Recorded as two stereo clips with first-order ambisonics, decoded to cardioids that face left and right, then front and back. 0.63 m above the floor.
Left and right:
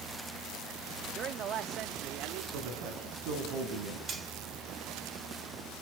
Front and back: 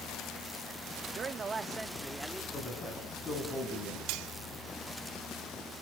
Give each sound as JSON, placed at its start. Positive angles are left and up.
{"t": 1.1, "sound": "a man speaking", "azimuth_deg": -130, "distance_m": 1.0}
{"t": 2.5, "sound": "a man speaking", "azimuth_deg": -70, "distance_m": 5.5}
{"t": 4.1, "sound": "cutlery clinking", "azimuth_deg": -160, "distance_m": 1.7}